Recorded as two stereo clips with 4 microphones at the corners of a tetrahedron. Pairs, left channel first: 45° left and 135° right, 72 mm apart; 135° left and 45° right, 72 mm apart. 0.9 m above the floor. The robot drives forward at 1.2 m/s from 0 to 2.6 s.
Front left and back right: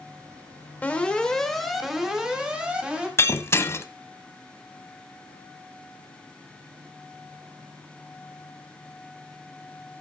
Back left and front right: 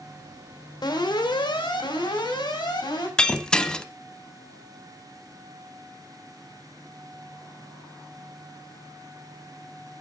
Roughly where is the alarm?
Left.